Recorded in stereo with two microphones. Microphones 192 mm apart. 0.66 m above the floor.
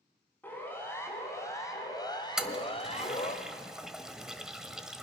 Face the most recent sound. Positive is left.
turn(degrees=-5)  # may be behind; listen again after turning